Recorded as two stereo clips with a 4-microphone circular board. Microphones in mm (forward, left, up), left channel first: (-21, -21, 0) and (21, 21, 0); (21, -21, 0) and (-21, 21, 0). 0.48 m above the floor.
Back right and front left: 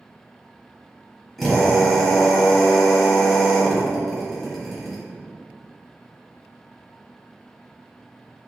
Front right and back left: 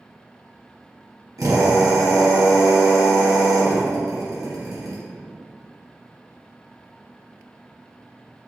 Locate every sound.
1.4 s a drill: 140° left, 1.0 m